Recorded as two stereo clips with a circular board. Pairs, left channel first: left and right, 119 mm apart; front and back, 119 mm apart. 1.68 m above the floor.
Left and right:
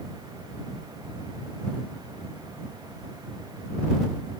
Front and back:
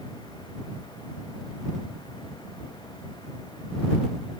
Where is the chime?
I don't hear a chime.